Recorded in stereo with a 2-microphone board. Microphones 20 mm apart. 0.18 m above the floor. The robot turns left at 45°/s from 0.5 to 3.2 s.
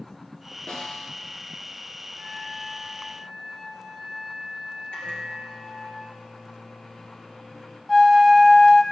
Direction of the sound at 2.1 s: 110° left.